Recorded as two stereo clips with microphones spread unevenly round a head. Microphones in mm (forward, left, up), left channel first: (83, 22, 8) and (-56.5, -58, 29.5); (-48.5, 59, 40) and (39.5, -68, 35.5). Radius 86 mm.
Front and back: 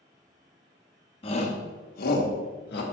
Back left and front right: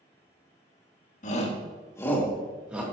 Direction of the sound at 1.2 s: 85° left.